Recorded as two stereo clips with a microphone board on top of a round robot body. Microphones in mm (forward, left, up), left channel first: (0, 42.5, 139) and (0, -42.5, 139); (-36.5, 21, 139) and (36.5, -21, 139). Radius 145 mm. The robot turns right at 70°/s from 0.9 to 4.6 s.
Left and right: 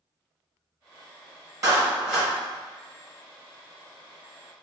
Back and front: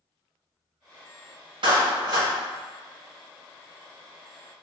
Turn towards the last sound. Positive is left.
turn(degrees=170)